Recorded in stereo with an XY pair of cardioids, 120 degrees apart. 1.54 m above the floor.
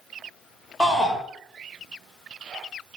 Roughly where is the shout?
Ahead.